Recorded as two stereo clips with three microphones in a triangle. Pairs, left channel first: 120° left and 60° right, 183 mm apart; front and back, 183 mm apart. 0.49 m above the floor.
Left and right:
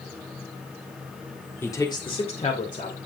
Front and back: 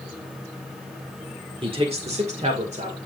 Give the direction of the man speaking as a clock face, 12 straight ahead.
6 o'clock.